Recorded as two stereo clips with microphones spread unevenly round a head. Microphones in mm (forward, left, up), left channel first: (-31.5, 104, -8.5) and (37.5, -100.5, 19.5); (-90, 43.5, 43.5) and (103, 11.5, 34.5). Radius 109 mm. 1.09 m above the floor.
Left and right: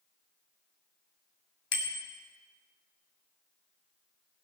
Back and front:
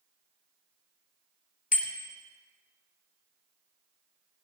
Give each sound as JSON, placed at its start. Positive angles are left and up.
{"t": 1.7, "sound": "a bicycle bell", "azimuth_deg": 120, "distance_m": 2.5}